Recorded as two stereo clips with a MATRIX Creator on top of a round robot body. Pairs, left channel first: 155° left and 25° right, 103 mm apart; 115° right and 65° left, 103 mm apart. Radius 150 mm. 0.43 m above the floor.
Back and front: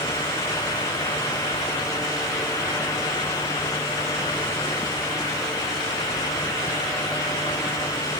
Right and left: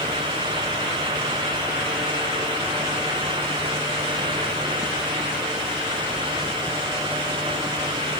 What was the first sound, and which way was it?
Only background noise.